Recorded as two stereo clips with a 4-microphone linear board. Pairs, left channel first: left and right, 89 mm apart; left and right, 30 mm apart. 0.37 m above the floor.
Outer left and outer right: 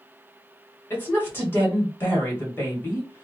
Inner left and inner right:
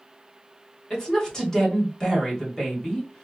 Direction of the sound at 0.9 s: 25° left (ahead or behind).